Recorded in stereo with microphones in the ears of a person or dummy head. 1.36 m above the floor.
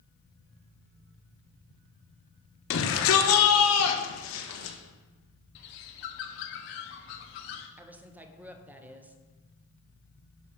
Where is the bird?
45° left (ahead or behind), 0.9 m.